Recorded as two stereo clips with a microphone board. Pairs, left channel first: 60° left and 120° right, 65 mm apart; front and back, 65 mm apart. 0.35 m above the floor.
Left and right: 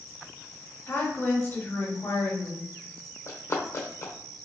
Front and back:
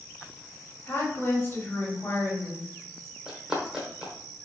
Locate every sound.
0.9 s a woman speaking: 35° left, 1.7 m
3.3 s running footsteps: 100° left, 0.9 m